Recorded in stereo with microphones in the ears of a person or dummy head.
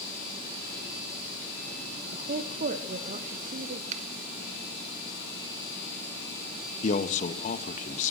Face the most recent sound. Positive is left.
turn(degrees=40)  # may be behind; listen again after turning